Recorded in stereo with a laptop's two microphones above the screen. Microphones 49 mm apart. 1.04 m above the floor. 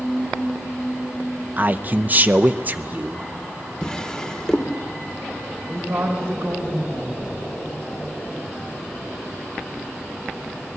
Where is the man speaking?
35° right (ahead or behind), 0.6 m.